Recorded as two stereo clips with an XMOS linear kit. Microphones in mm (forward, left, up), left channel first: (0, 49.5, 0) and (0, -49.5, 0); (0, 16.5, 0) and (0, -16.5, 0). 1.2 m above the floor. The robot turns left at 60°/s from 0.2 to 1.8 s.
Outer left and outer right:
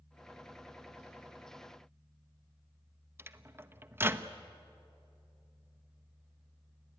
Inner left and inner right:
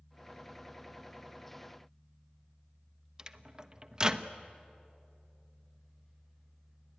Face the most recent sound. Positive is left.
turn(degrees=-25)  # may be behind; listen again after turning